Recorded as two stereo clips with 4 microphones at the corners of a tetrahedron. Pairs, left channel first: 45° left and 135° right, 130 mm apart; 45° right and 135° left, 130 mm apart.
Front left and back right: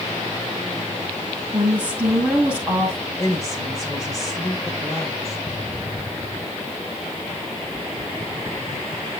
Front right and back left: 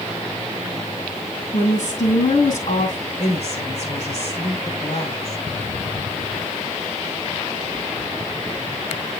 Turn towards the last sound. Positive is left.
turn(degrees=-20)